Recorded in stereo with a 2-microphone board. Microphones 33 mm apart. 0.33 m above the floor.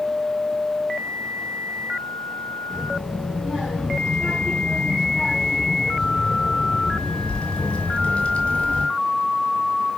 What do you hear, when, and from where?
2.7 s a child speaking: 15° right (ahead or behind), 3.5 m; by 8.9 s 35° left (ahead or behind), 1.5 m